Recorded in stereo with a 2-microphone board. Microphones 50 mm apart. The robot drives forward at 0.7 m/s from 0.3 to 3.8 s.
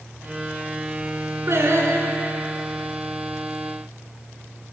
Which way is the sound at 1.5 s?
60° right (ahead or behind).